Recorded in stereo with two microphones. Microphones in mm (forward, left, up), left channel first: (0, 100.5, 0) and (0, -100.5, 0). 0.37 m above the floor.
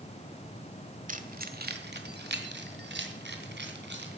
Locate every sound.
1.1 s keys jangling: 45° right (ahead or behind), 1.3 m; by 4.2 s 70° right (ahead or behind), 3 m